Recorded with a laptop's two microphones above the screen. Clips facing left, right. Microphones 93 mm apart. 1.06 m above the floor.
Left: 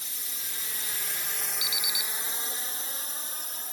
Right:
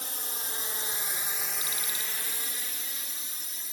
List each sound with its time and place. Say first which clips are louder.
0.0 s a drone: right 6 dB; 55° right (ahead or behind); by 3.7 s 50° left (ahead or behind)
1.6 s an alarm clock: left 1 dB; 40° right (ahead or behind)